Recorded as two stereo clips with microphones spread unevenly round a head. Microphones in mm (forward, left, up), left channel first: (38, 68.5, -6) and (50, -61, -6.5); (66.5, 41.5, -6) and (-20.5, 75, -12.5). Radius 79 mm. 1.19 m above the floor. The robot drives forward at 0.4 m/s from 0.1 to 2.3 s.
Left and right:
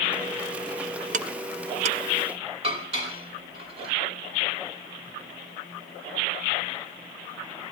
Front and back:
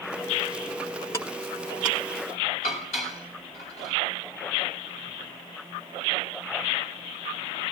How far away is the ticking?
About 0.6 m.